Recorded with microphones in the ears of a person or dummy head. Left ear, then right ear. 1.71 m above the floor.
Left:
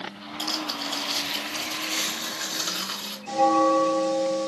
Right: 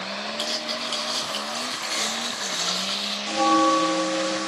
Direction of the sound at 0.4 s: 5° right (ahead or behind).